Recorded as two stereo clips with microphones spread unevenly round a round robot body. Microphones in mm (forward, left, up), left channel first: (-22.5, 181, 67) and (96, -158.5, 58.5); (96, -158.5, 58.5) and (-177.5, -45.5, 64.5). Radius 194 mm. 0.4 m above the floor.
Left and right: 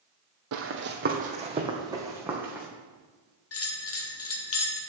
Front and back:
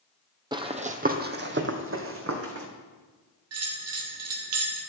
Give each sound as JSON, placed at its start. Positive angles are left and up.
{"t": 0.5, "sound": "running footsteps", "azimuth_deg": -125, "distance_m": 1.0}
{"t": 3.5, "sound": "a bell", "azimuth_deg": 150, "distance_m": 1.4}